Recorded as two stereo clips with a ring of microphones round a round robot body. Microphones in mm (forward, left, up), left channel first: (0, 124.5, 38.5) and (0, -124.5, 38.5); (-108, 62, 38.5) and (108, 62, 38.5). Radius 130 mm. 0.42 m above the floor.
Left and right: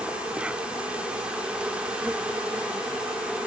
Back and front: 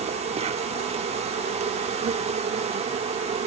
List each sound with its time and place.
0.0 s an insect: 10° right